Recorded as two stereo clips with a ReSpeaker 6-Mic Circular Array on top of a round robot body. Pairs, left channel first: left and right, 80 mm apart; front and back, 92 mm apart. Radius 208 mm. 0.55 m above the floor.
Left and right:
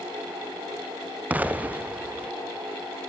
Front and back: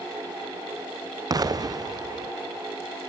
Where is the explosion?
155° right, 1.1 m.